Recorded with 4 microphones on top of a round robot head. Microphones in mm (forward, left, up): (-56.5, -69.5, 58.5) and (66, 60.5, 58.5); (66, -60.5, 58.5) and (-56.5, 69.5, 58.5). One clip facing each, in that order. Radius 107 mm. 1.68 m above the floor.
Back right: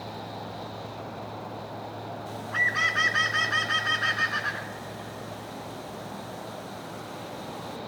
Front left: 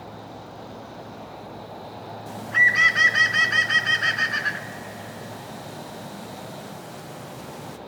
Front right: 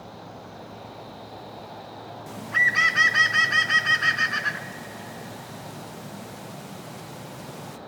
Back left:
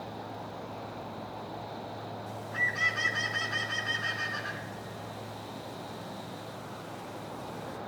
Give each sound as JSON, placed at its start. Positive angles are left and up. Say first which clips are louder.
{"t": 2.3, "sound": "a bird", "louder": "front left 3 dB, front right 4 dB", "azimuth_deg": -25, "distance_m": 0.8}